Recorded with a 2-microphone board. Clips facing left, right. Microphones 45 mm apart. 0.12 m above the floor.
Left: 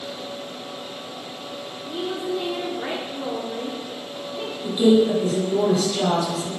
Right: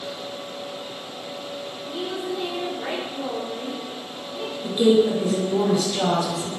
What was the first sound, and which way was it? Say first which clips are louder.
A woman speaking: left 3 dB; 15° left (ahead or behind).